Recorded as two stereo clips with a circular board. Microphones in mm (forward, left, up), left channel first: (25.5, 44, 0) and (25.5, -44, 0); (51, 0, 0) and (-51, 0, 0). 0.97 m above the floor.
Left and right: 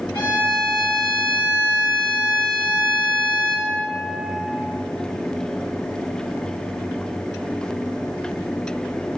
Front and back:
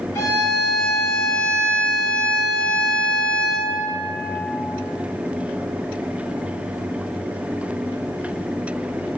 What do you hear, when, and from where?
0.1 s a violin: 60° left, 1.3 m